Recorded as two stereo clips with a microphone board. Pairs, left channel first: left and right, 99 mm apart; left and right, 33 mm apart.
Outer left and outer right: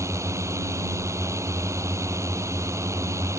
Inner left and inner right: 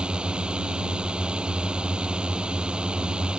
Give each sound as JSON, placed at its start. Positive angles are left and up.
{"t": 0.0, "sound": "a drone", "side_deg": -30}